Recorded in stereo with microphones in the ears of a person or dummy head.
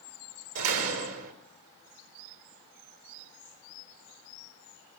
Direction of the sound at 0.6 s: 85° right.